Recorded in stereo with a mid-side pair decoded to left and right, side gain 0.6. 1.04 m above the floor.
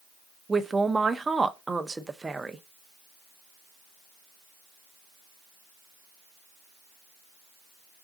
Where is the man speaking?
15° right, 0.5 m.